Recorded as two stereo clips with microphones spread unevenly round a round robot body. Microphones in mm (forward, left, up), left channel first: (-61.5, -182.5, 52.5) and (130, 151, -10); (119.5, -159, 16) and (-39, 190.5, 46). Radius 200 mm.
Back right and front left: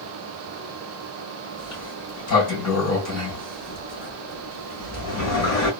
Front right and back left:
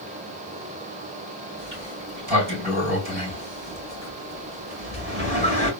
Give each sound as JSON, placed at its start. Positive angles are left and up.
{"t": 1.6, "sound": "a sliding door", "azimuth_deg": 180, "distance_m": 2.5}